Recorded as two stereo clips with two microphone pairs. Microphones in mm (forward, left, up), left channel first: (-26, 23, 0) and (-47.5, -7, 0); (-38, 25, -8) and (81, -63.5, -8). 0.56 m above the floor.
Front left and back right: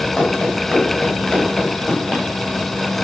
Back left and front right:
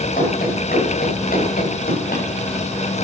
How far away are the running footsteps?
About 8 m.